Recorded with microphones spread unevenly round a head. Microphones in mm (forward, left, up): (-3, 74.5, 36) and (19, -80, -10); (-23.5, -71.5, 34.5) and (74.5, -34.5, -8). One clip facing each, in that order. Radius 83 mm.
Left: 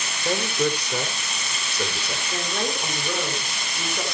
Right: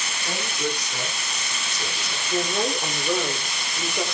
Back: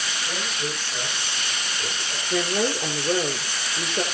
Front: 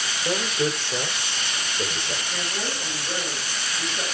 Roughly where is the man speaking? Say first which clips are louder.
Left 6 dB, front 9 dB; ahead left.